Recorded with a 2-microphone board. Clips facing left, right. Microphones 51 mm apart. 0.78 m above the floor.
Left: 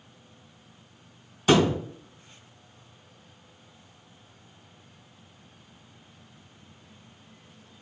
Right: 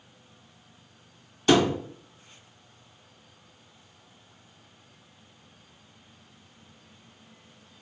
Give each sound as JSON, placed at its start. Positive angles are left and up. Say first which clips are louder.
{"t": 1.5, "sound": "a thud", "louder": "even", "side_deg": 15, "distance_m": 1.4}